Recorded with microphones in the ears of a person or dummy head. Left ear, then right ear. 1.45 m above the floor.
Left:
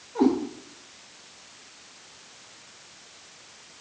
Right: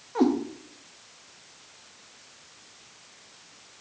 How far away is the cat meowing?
About 1.1 m.